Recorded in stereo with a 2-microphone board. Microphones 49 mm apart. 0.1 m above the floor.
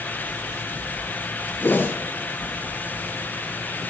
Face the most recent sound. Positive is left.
turn(degrees=45)  # may be behind; listen again after turning